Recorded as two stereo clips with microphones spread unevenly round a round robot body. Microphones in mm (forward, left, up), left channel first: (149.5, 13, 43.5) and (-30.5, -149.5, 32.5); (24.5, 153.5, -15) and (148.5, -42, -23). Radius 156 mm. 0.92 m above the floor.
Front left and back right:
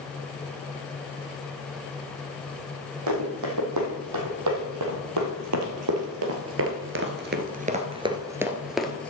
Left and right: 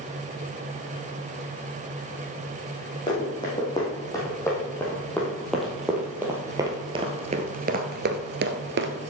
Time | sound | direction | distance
3.1 | running footsteps | 165° right | 3 m